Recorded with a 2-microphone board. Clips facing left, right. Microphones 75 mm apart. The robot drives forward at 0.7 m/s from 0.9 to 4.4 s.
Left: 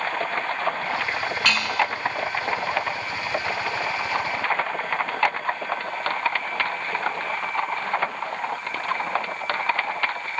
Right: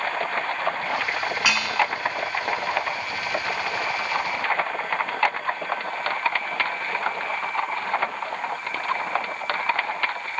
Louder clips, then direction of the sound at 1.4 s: Left 1 dB; 10° right (ahead or behind).